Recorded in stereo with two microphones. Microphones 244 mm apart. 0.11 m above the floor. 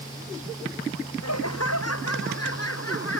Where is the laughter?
75° left (ahead or behind); by 3.2 s 60° left (ahead or behind).